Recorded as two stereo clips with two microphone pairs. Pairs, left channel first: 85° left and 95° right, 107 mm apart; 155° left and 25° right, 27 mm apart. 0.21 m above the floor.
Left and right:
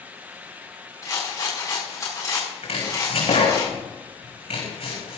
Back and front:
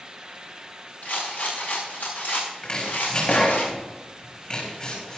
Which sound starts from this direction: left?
Chopping, at 2.6 s.